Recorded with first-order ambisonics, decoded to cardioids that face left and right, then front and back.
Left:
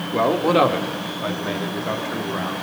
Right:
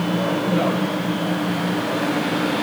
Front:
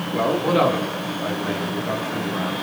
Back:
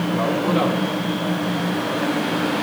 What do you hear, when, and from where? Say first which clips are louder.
0.1 s a man speaking: left 7 dB, front 3 dB; 85° left, 2 m; by 2.5 s 80° left, 4 m